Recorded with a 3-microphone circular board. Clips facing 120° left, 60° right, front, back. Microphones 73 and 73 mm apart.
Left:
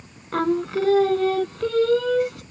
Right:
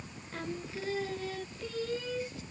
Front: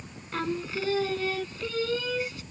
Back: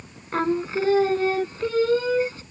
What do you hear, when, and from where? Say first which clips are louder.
0.3 s singing: left 18 dB, back 8 dB; 125° left